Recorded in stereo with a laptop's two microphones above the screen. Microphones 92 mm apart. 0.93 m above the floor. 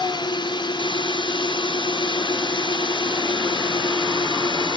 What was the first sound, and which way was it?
A drone, 60° left (ahead or behind).